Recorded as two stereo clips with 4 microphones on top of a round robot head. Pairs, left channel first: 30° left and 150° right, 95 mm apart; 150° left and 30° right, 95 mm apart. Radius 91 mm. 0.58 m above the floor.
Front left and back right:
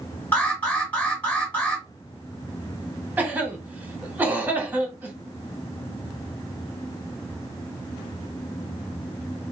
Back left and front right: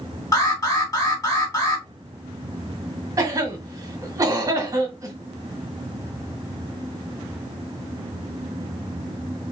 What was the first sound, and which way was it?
An alarm, 100° left.